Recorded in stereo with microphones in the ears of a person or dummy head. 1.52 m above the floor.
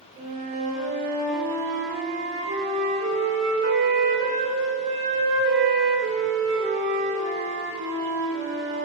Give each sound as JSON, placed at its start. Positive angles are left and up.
{"t": 0.2, "sound": "a flute", "side_deg": -40, "distance_m": 1.4}